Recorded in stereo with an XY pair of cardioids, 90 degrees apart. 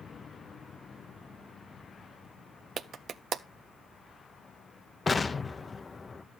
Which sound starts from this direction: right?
A clap, at 2.8 s.